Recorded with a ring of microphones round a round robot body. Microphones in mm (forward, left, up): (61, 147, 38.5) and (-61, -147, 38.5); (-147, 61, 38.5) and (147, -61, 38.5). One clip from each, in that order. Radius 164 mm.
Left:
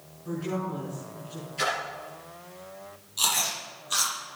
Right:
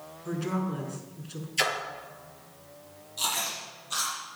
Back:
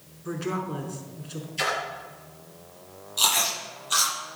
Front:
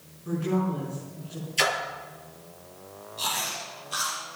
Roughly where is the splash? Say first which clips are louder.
Right 1 dB, front 2 dB; right.